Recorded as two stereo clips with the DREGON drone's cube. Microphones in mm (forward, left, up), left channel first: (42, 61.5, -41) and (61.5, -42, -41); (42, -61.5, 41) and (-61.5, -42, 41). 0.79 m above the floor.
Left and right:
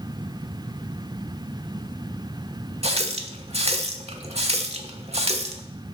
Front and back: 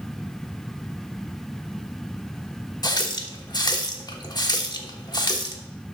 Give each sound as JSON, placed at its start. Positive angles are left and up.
{"t": 2.8, "sound": "a running tap", "azimuth_deg": -65, "distance_m": 1.1}